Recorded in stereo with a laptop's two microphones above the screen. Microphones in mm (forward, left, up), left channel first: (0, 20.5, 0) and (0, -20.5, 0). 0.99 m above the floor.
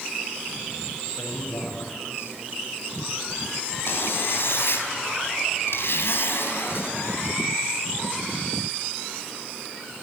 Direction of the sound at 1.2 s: 80° left.